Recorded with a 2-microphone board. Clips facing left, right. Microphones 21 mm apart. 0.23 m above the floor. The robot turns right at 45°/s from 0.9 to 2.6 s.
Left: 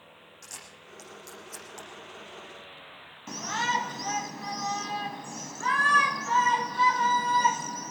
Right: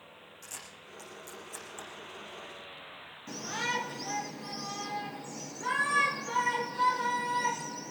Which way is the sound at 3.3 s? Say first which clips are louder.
Left 5 dB; 45° left (ahead or behind).